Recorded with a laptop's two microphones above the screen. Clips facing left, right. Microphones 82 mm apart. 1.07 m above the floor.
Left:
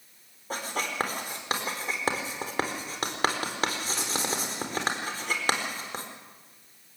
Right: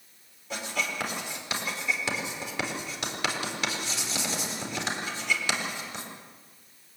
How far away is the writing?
About 4 m.